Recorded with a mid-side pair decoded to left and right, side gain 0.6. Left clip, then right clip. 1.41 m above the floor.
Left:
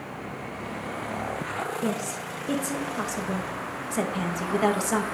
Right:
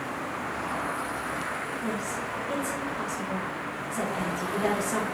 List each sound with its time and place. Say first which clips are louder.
1.8 s a woman speaking: left 1 dB; 50° left, 2.0 m